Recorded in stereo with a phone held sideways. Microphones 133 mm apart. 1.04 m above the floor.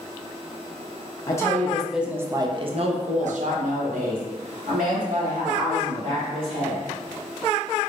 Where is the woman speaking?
25° left (ahead or behind), 0.7 m; by 6.8 s 85° right, 2.5 m.